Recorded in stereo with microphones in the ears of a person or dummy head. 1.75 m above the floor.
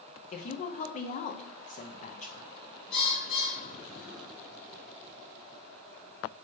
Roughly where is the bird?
Left.